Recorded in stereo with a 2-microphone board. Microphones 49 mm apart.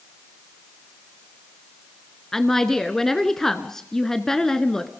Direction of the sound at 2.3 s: 10° left (ahead or behind).